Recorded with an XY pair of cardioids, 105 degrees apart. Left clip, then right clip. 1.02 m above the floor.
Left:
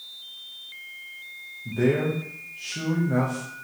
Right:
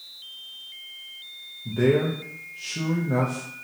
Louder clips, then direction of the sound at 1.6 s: Right 2 dB; 15° right.